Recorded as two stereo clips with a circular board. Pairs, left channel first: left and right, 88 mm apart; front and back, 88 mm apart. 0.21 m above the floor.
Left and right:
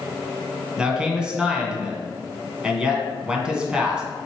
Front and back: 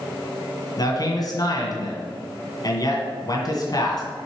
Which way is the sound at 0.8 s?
15° right.